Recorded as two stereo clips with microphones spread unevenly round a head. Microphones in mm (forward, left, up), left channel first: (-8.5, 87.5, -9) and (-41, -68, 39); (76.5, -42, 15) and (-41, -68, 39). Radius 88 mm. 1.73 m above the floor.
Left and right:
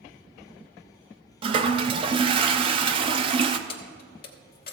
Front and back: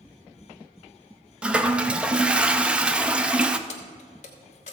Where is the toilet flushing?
105° right, 0.6 m.